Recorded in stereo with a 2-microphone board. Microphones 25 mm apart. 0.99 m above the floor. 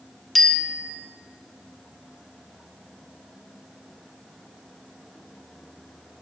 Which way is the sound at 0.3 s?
10° left (ahead or behind).